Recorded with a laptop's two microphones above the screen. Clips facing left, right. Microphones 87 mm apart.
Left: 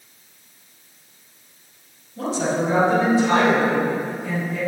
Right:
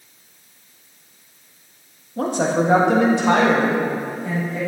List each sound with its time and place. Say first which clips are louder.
2.2 s a woman speaking: right 3 dB; 50° right (ahead or behind), 1.3 m; by 4.6 s 45° right (ahead or behind), 2.5 m